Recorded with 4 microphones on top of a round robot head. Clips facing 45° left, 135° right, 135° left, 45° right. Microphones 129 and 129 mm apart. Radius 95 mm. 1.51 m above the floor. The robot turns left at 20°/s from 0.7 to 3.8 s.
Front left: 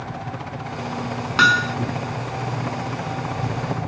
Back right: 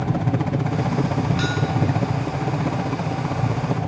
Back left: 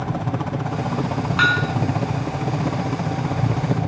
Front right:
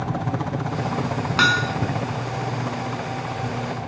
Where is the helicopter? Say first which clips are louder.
Back right 8 dB, back left 1 dB; 145° right; by 3.9 s 155° left.